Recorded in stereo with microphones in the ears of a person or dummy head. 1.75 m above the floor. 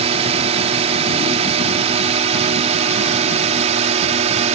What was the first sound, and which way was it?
A drone, 35° right (ahead or behind).